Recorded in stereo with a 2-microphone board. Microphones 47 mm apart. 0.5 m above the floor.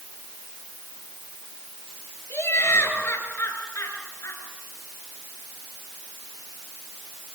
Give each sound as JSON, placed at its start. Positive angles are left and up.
{"t": 2.3, "sound": "laughter", "side_deg": 70, "distance_m": 9.0}